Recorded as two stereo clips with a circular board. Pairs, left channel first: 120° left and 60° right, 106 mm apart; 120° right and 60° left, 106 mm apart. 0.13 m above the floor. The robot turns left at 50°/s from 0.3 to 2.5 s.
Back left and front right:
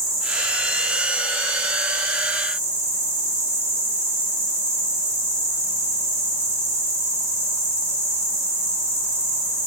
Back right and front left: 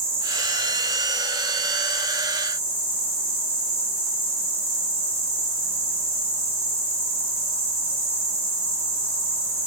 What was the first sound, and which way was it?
An insect, 25° left.